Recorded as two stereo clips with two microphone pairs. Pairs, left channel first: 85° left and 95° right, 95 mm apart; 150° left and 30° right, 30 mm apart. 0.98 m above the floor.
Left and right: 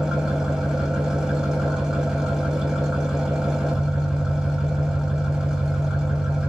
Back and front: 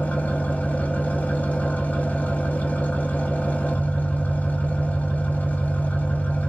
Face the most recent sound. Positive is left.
turn(degrees=175)